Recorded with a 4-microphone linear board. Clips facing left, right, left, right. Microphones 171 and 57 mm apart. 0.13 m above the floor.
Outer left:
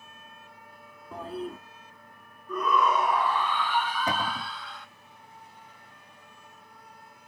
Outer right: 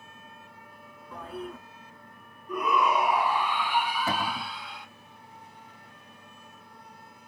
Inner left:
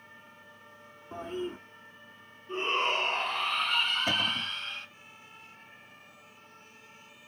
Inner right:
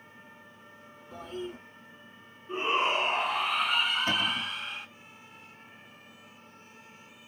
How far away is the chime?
No chime in this recording.